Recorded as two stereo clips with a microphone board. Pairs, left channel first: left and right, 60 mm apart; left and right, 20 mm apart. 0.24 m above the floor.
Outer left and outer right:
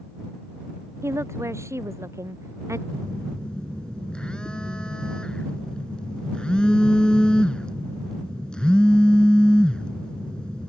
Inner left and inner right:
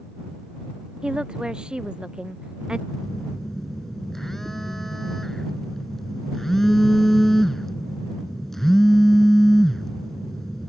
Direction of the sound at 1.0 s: 50° right (ahead or behind).